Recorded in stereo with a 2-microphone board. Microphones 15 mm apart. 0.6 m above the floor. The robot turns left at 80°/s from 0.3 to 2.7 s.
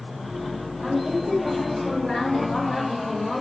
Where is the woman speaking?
125° right, 2.0 m; by 3.4 s 80° left, 2.0 m.